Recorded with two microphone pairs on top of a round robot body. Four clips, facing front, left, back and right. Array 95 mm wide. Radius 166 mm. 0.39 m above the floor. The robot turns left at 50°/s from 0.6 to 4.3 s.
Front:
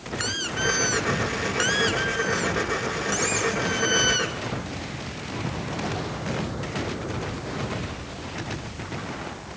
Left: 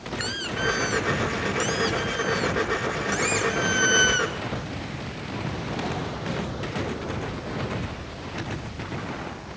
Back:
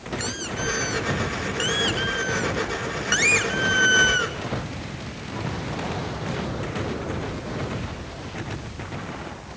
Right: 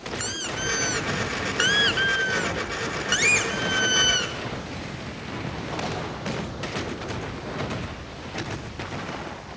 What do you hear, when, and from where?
0.2 s a squeak: 15° right, 1.1 m; by 4.3 s 160° left, 1.1 m